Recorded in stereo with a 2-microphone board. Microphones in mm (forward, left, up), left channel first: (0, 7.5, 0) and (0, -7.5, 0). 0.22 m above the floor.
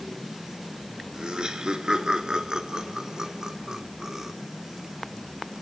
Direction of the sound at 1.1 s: 70° right (ahead or behind).